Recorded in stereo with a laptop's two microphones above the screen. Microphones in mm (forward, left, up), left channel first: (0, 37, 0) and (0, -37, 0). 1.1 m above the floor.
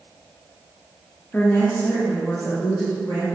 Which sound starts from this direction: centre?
A woman speaking, at 1.3 s.